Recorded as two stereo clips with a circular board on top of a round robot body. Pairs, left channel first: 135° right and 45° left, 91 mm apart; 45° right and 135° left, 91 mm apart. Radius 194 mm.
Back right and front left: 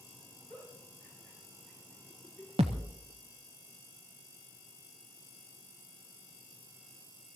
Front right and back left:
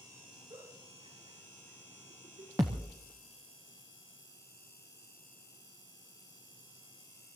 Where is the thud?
75° left, 0.6 m.